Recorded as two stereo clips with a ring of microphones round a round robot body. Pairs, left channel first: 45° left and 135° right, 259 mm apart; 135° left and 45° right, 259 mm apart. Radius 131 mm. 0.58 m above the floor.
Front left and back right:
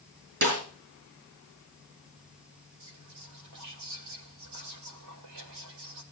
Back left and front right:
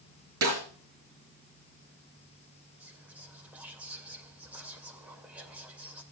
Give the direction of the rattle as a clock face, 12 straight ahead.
No rattle in this recording.